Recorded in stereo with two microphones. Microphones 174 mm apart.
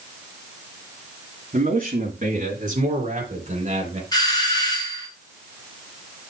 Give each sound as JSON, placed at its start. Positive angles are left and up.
{"t": 1.5, "sound": "a man speaking", "side_deg": -50, "distance_m": 2.5}
{"t": 4.1, "sound": "a doorbell", "side_deg": 25, "distance_m": 2.5}